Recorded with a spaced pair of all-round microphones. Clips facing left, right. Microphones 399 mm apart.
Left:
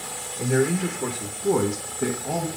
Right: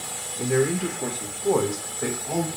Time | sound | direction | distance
0.4 | a man speaking | 15° right (ahead or behind) | 1.3 m